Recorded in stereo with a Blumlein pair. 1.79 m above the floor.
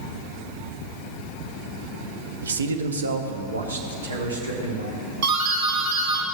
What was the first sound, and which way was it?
A man speaking, 65° right.